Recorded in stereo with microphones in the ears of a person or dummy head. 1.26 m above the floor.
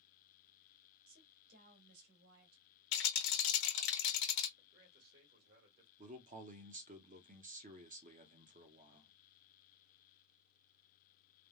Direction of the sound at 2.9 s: 70° left (ahead or behind).